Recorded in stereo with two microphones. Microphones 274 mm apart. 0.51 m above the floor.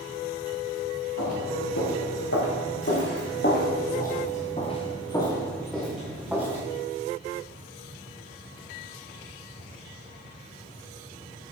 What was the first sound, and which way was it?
Footsteps, 70° left (ahead or behind).